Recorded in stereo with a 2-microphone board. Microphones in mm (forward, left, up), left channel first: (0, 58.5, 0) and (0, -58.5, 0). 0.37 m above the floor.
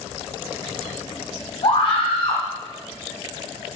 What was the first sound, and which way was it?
A scream, 55° left (ahead or behind).